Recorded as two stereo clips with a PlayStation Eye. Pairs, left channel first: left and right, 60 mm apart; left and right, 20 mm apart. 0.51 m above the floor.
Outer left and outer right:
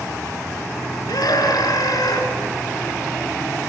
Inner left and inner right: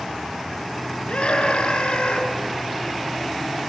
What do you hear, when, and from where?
1.1 s a scream: 80° left, 6 m